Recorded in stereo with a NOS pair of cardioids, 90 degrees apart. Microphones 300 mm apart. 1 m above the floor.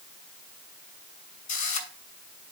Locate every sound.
1.5 s a camera shutter: 70° left, 6.5 m